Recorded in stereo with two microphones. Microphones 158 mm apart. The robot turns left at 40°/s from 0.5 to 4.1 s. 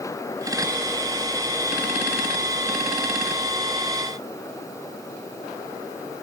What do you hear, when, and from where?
Only background noise.